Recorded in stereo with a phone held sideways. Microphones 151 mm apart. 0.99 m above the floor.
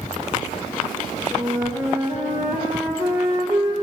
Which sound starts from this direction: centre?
A flute, at 1.3 s.